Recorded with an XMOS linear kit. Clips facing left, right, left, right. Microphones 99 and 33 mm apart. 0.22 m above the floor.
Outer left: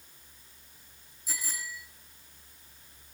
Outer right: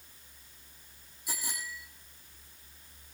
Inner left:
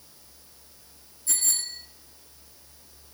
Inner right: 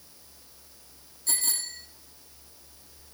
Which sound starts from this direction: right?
A bicycle bell, at 1.3 s.